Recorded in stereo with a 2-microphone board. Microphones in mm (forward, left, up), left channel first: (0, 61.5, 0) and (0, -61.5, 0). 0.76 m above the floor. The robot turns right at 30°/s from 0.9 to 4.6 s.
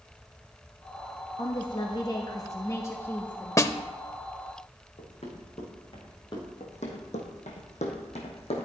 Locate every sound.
1.4 s a woman speaking: 100° left, 1.1 m; by 3.7 s 170° left, 1.1 m
3.6 s a snare drum: 25° left (ahead or behind), 0.5 m
5.0 s running footsteps: 65° left (ahead or behind), 2.5 m; by 6.5 s 35° left (ahead or behind), 3 m
6.6 s running footsteps: 65° left (ahead or behind), 2.5 m; by 8.7 s 55° left (ahead or behind), 2.5 m